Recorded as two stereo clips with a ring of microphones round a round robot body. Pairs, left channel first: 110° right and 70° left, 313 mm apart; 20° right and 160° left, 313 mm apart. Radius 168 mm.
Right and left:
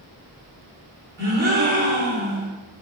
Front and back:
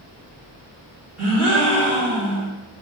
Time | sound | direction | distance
1.2 | a gasp | 125° left | 3 m